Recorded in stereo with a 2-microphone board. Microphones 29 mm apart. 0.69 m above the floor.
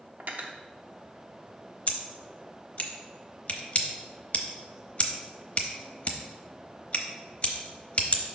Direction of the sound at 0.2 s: 60° right (ahead or behind).